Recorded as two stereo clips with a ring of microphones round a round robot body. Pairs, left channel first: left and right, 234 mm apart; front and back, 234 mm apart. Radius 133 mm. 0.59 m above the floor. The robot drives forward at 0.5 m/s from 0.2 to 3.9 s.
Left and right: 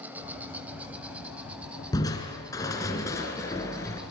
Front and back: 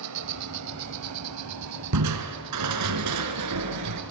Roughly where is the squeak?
No squeak in this recording.